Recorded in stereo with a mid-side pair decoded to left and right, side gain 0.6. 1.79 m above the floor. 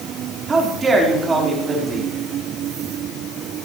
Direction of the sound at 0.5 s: 25° right.